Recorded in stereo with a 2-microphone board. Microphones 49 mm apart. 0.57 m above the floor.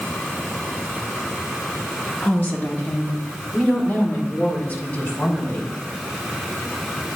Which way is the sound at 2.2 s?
45° left (ahead or behind).